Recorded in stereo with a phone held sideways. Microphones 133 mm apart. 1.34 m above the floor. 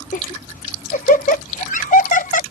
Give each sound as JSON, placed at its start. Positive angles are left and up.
{"t": 0.1, "sound": "laughter", "side_deg": 70}